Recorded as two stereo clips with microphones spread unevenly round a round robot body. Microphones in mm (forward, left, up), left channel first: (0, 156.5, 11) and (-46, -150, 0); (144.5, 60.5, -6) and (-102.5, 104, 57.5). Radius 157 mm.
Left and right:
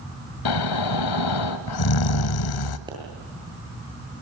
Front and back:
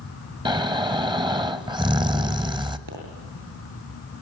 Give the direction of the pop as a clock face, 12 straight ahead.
6 o'clock.